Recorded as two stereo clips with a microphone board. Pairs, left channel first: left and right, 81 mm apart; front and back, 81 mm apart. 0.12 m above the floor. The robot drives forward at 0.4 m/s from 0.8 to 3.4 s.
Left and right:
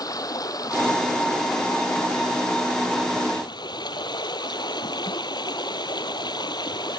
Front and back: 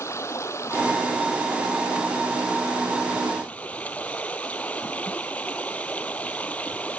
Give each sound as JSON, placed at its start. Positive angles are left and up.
{"t": 0.0, "sound": "running water", "azimuth_deg": 55}